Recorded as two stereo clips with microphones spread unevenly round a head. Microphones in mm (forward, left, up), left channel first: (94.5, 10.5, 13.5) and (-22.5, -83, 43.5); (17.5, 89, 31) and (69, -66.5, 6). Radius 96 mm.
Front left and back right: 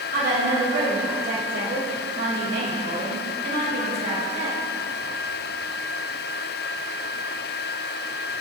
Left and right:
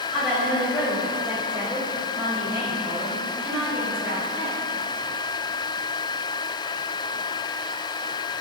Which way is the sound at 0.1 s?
165° right.